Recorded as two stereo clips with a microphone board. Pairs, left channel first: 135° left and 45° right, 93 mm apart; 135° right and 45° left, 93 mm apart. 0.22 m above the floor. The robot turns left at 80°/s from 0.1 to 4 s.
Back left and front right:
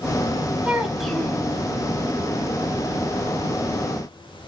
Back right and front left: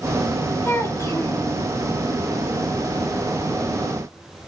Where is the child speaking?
105° right, 1.1 m; by 1.5 s 170° right, 1.1 m.